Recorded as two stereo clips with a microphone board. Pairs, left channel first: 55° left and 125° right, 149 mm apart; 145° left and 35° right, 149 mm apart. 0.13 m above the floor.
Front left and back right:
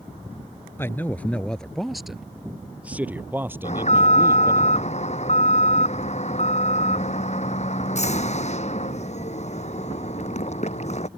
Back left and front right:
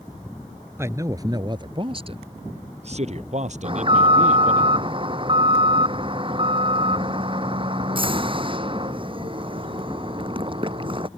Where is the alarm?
20° left.